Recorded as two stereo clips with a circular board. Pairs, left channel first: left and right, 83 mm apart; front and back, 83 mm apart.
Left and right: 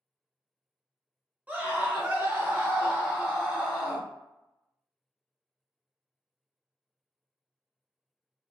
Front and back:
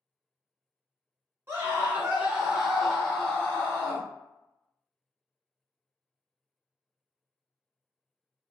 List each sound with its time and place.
1.5 s a scream: 145° right, 1.4 m; by 4.1 s 5° right, 1.3 m